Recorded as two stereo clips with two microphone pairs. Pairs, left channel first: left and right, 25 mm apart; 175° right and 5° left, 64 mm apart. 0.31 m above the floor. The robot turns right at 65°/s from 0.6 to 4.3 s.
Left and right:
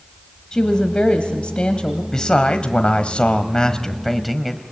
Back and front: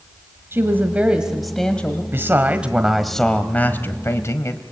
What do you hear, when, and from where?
0.5 s a woman speaking: 40° left, 1.4 m; by 2.0 s 130° left, 1.4 m
2.1 s a man speaking: 35° left, 1.3 m; by 4.6 s straight behind, 1.3 m